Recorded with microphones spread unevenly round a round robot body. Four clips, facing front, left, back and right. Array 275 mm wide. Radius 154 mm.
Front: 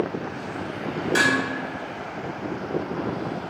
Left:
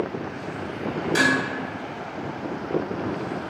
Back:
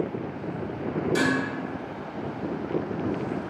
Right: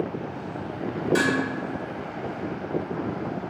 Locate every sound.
1.1 s dishes clattering: 25° left, 1.8 m